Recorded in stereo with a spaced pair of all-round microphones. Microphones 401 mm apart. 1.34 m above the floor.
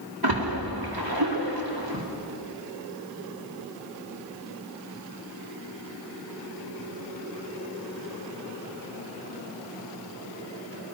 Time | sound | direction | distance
0.2 | a splash | 55° right (ahead or behind) | 1.9 m